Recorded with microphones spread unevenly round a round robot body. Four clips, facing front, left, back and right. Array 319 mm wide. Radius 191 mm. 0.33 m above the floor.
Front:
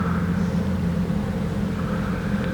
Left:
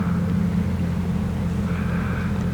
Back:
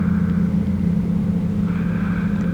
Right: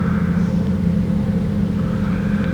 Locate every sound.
Only background noise.